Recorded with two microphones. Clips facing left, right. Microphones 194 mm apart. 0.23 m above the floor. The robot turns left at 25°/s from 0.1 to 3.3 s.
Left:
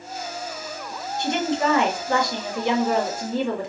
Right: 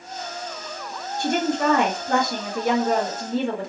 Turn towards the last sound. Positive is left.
turn(degrees=-130)